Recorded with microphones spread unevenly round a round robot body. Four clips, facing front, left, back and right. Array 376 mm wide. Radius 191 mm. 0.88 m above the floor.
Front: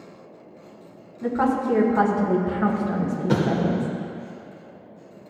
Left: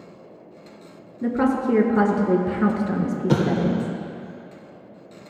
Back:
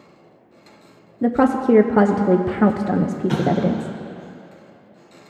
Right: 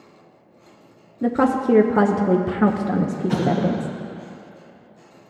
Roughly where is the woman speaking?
Behind.